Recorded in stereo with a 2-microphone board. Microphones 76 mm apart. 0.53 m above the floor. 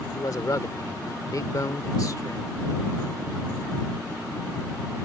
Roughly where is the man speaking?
Left.